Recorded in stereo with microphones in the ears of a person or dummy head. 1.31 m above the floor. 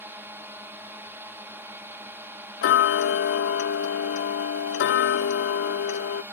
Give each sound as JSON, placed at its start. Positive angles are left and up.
{"t": 0.0, "sound": "a drone", "side_deg": -10}
{"t": 2.6, "sound": "ticking", "side_deg": 60}